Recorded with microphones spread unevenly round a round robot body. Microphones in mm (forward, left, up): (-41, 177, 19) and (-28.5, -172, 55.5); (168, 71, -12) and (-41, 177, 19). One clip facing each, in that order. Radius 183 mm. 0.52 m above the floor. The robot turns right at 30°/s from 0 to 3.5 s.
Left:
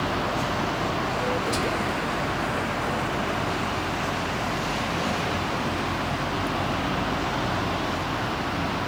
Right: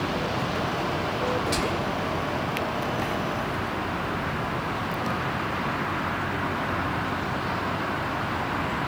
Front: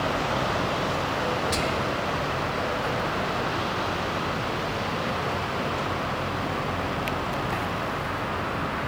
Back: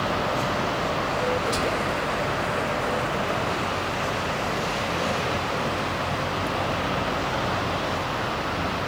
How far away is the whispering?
About 0.8 m.